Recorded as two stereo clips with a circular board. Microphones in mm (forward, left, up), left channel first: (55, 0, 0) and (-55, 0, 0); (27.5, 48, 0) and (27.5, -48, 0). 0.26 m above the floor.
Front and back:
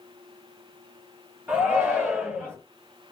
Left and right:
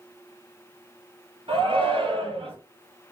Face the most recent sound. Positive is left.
turn(degrees=-110)